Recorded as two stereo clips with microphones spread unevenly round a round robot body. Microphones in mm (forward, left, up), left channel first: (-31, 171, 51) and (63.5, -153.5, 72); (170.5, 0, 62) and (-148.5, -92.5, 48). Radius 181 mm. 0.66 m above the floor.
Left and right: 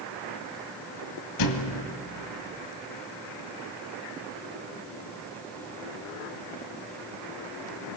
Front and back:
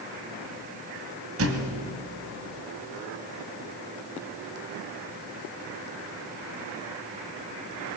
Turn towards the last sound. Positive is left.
turn(degrees=140)